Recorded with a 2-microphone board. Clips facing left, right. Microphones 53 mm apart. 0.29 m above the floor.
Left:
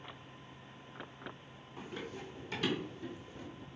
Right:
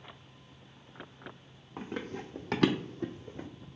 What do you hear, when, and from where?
1.8 s running footsteps: 40° right (ahead or behind), 0.8 m; by 3.5 s 35° right (ahead or behind), 0.6 m